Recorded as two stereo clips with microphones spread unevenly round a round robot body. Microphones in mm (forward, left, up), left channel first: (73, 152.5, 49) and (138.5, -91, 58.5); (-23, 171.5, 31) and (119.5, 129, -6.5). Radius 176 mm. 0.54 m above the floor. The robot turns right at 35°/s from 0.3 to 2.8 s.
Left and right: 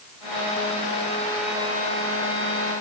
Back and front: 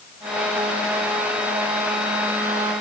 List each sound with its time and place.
Only background noise.